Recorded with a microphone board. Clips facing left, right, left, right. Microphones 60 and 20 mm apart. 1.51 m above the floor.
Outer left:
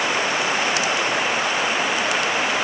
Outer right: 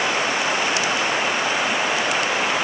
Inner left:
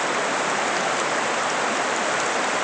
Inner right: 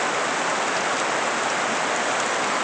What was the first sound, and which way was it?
Only background noise.